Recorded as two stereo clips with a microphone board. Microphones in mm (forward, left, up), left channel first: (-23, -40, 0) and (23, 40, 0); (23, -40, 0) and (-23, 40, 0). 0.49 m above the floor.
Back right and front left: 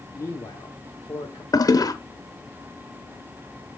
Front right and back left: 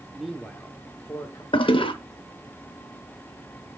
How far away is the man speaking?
About 0.8 m.